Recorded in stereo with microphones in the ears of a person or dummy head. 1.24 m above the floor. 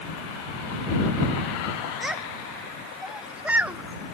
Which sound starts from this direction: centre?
A child speaking, at 2.0 s.